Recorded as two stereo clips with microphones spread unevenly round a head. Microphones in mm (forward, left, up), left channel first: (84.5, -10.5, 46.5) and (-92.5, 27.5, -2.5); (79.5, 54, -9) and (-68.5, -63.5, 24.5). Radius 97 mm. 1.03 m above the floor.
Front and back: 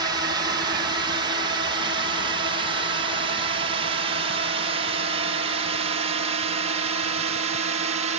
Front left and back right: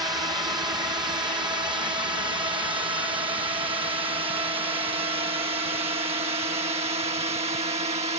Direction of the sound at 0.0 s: 145° left.